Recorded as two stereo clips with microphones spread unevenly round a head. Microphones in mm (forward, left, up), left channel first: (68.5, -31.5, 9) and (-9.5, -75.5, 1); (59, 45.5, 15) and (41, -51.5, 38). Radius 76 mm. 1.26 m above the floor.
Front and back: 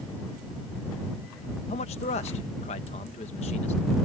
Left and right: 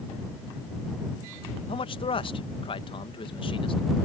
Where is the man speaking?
50° left.